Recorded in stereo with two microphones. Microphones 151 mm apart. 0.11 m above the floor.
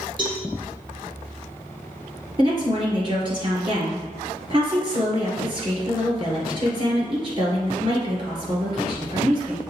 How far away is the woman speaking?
About 1.9 m.